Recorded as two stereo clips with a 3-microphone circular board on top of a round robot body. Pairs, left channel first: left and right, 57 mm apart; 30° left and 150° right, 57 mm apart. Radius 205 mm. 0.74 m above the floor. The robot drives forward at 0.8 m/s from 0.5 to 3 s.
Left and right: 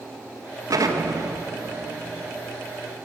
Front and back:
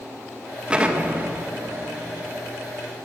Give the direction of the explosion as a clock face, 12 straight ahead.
3 o'clock.